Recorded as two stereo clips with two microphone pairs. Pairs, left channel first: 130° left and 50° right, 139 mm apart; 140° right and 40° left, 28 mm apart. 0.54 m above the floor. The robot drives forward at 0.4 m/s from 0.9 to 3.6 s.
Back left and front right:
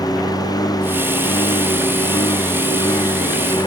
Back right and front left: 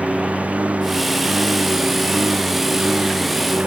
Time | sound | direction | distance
0.0 | a lawn mower | 65° left | ?